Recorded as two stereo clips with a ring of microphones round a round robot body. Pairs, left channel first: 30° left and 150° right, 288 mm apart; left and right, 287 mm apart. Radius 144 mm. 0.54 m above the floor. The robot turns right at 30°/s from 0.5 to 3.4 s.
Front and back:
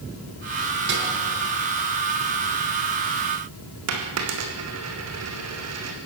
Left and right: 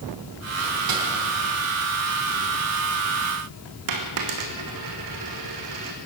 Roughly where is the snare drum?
Right.